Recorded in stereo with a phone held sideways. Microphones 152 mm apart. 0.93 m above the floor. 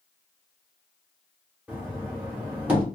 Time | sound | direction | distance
1.7 | knocking | 10° right (ahead or behind) | 1.1 m